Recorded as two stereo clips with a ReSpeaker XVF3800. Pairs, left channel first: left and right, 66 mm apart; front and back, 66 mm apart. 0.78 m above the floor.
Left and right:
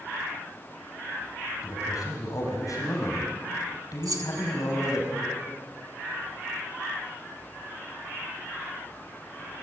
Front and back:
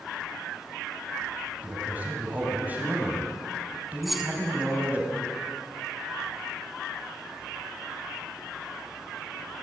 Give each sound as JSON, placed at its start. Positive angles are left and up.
{"t": 1.6, "sound": "a man speaking", "azimuth_deg": 115, "distance_m": 6.0}
{"t": 4.0, "sound": "keys jangling", "azimuth_deg": -90, "distance_m": 1.6}